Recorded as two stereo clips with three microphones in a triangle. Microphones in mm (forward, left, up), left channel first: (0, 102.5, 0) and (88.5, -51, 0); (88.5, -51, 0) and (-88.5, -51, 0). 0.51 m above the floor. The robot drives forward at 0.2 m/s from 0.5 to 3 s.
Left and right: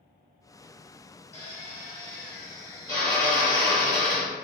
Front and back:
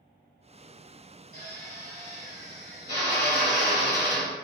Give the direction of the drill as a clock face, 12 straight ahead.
6 o'clock.